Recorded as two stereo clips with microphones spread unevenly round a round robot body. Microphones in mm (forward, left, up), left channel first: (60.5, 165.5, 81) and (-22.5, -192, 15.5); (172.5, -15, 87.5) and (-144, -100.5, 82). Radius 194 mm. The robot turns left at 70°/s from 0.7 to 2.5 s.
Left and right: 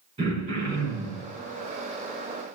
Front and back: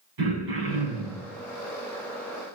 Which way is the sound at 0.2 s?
175° right.